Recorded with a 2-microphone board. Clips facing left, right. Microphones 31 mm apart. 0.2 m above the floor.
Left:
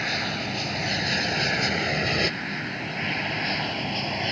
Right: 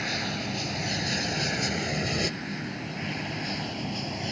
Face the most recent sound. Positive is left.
turn(degrees=40)  # may be behind; listen again after turning